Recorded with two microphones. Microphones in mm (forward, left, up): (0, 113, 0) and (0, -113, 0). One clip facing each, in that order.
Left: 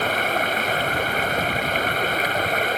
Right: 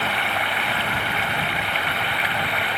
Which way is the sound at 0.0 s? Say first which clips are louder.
Left 4 dB; 45° left (ahead or behind).